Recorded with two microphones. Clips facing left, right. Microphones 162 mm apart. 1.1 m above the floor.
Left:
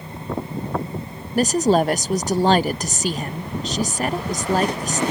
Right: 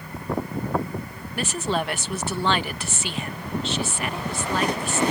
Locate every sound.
1.4 s a woman speaking: 40° left (ahead or behind)